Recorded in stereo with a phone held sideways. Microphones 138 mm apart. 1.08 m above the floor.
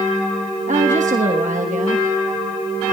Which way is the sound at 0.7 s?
65° right (ahead or behind).